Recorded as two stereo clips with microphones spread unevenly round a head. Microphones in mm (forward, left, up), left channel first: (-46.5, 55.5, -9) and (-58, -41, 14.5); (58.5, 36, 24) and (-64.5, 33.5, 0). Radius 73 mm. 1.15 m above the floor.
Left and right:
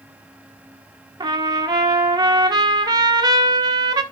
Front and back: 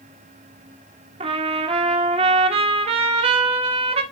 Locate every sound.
1.2 s a trumpet: 150° right, 1.2 m